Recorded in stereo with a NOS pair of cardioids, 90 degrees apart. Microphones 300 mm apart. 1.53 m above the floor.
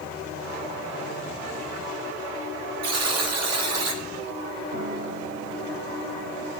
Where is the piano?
65° right, 6.5 m.